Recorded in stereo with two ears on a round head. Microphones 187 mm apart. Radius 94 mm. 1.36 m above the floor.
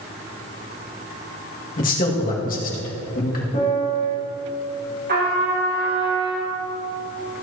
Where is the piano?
40° left (ahead or behind), 2.5 m.